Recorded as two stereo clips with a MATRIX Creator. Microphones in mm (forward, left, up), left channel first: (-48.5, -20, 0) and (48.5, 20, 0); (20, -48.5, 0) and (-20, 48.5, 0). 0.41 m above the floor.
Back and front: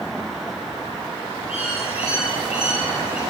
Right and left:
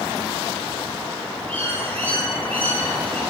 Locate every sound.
1.5 s a bird: 140° right, 7 m